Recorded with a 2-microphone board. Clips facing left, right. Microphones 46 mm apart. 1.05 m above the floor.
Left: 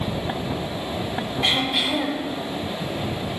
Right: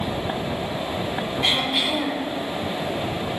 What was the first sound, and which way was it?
Throat clearing, centre (ahead or behind).